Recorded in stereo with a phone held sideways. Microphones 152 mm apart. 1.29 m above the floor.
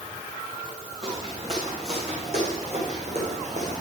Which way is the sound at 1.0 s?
45° right (ahead or behind).